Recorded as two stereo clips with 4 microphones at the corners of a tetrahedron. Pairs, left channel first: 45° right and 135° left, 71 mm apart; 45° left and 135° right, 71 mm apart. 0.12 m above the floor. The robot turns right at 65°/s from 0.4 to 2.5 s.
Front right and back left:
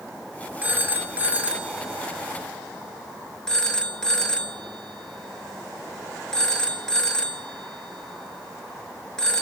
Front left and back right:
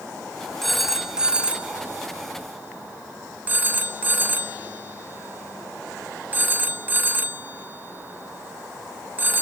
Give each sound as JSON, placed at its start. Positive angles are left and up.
{"t": 0.6, "sound": "a phone ringing", "azimuth_deg": 125, "distance_m": 0.7}